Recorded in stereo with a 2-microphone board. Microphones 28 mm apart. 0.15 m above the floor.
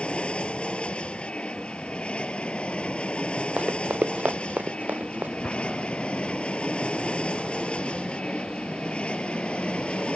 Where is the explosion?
55° left (ahead or behind).